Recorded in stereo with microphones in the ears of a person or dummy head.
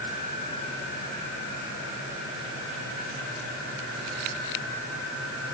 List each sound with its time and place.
Only background noise.